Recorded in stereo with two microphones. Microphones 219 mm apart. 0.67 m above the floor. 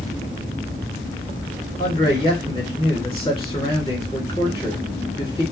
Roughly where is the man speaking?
Left.